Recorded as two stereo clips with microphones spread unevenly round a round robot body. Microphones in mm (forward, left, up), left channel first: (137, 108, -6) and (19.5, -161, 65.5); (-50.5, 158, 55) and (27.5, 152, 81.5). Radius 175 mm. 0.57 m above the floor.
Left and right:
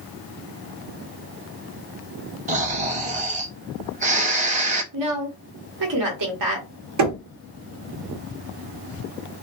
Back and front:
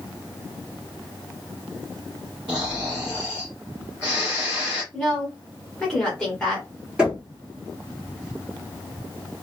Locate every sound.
2.5 s snoring: 55° right, 0.7 m
4.9 s a woman speaking: 120° right, 1.1 m
7.0 s knocking: 100° right, 1.1 m